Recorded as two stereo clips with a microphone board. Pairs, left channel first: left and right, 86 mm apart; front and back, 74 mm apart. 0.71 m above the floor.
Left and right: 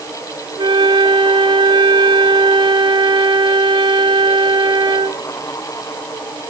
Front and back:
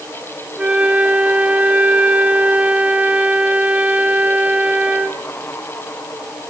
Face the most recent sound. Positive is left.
turn(degrees=-110)